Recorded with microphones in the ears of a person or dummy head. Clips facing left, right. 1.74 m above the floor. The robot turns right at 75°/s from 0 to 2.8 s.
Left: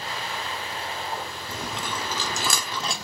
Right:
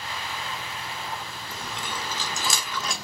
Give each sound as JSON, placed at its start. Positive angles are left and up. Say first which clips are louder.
{"t": 1.5, "sound": "chewing", "louder": "left 3 dB", "side_deg": 60, "distance_m": 0.6}